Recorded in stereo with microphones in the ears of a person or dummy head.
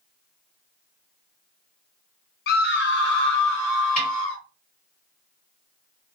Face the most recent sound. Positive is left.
turn(degrees=50)  # may be behind; listen again after turning